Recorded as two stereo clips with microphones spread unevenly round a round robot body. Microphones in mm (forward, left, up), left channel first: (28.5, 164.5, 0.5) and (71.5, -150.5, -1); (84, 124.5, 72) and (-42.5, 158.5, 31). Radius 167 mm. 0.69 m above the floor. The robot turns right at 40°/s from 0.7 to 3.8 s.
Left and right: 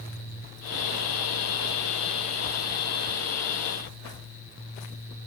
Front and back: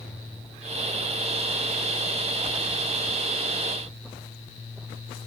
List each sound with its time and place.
Only background noise.